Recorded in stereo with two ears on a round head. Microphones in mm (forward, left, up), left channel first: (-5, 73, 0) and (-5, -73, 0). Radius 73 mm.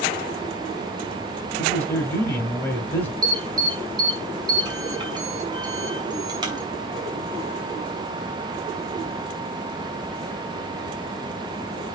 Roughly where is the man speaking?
Centre.